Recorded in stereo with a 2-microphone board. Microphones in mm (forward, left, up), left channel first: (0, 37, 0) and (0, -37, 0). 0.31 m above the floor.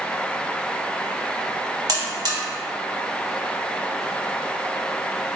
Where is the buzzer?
55° right (ahead or behind), 0.7 m.